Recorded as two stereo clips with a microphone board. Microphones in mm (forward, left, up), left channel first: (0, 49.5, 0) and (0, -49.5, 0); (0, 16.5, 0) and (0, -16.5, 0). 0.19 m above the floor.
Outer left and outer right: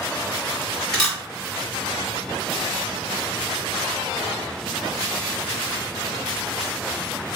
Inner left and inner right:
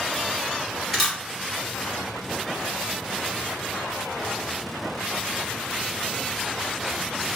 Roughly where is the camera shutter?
Centre.